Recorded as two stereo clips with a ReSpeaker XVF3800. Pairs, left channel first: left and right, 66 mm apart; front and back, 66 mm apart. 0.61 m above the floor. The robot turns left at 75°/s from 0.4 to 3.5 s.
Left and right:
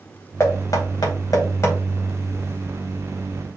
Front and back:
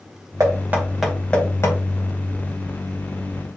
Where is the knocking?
140° left, 2.5 m; by 1.8 s 40° left, 2.5 m.